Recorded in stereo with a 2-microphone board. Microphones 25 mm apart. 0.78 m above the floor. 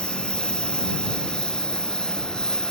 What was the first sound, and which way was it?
A lawn mower, 40° left (ahead or behind).